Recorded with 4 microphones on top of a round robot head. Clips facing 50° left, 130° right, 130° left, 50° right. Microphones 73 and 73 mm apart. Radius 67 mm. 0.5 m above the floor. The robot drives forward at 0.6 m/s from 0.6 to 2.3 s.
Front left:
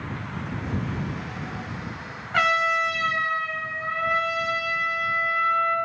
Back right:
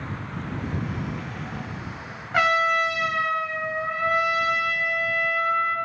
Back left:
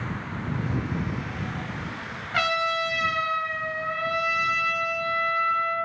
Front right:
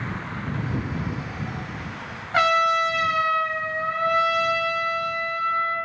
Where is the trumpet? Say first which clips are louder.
Back right 1 dB, front right 6 dB; 55° right, 0.5 m.